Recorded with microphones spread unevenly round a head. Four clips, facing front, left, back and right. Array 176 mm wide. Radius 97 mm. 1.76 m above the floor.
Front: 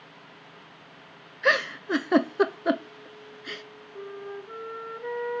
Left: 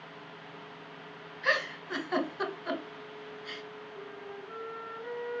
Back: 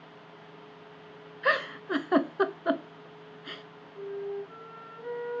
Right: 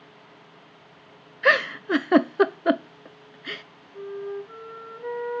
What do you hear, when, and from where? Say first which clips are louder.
1.4 s a giggle: right 10 dB, front 3 dB; 65° right, 0.9 m
3.9 s a flute: right 14 dB, back 3 dB; 35° right, 4 m